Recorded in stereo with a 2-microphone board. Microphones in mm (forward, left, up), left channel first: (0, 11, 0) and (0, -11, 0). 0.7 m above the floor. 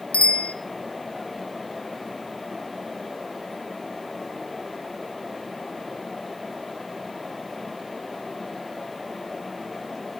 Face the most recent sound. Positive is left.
turn(degrees=70)  # may be behind; listen again after turning